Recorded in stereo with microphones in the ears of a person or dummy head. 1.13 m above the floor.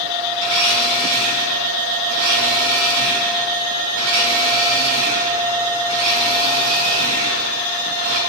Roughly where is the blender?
Right.